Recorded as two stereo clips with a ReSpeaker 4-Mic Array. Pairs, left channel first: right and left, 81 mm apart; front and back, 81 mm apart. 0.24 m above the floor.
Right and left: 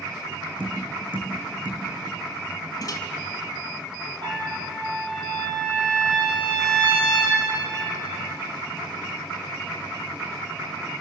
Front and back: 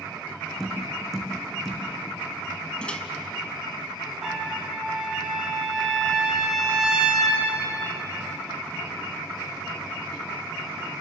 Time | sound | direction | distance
0.6 | tapping | 85° left | 5.5 m
2.8 | a microwave | 75° right | 1.8 m
4.2 | a trumpet | 95° left | 7.5 m